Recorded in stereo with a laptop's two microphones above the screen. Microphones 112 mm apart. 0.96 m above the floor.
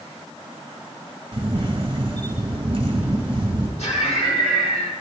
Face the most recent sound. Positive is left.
turn(degrees=80)